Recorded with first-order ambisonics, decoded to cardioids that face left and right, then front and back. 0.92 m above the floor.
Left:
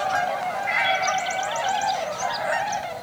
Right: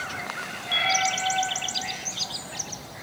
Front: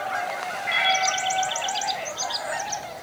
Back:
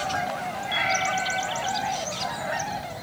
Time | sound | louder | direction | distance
0.6 | a cat meowing | even, front 3 dB | 40° left | 6 m